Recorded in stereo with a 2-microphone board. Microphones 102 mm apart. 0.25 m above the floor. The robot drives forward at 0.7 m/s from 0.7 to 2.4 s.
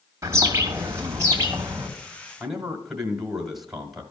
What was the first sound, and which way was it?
A bird, 30° right (ahead or behind).